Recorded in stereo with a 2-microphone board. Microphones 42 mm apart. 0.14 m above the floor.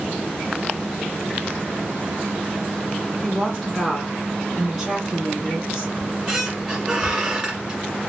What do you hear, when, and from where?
3.2 s a woman speaking: 5° left (ahead or behind), 1.7 m; by 5.9 s 20° right (ahead or behind), 1.7 m
6.0 s a squeak: 15° right (ahead or behind), 1.3 m